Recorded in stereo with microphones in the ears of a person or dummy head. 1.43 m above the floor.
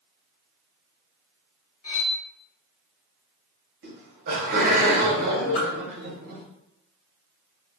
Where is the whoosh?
75° left (ahead or behind), 1.3 m.